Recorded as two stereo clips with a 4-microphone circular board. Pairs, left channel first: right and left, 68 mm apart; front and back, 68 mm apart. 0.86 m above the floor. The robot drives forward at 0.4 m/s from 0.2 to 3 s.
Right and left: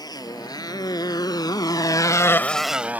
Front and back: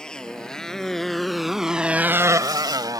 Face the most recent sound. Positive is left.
turn(degrees=155)